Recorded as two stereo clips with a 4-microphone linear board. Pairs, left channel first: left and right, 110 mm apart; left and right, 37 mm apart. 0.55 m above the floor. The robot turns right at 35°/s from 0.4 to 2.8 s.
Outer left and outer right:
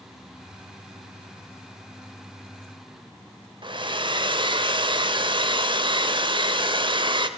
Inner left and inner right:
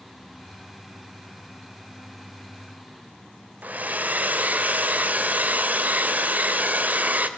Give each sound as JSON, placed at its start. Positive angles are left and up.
{"t": 3.6, "sound": "a hair dryer", "side_deg": -50, "distance_m": 1.5}